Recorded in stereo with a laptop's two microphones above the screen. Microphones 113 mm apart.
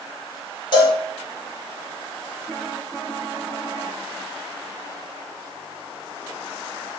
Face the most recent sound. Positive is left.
turn(degrees=45)  # may be behind; listen again after turning